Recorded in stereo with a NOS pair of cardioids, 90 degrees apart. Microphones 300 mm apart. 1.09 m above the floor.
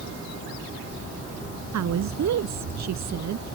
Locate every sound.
1.7 s a woman speaking: 60° right